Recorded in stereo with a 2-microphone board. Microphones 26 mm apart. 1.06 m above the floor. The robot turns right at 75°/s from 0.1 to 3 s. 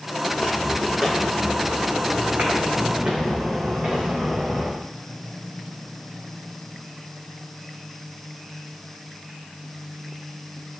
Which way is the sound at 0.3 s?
50° left (ahead or behind).